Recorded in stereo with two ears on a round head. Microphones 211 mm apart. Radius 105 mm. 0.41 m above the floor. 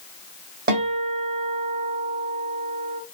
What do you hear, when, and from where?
0.7 s a guitar: 40° right (ahead or behind), 1.0 m